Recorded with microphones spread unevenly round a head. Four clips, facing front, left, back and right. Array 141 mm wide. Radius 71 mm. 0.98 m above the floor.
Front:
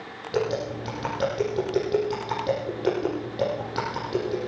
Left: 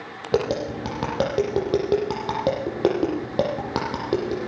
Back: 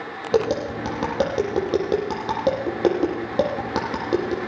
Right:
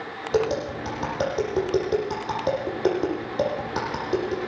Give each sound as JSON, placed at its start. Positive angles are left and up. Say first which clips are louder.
{"t": 0.3, "sound": "tapping", "louder": "left 1 dB, back 5 dB", "azimuth_deg": 135, "distance_m": 9.0}